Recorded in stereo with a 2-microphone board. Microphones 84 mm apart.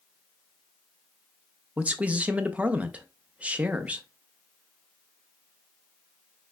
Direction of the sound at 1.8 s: 15° right (ahead or behind).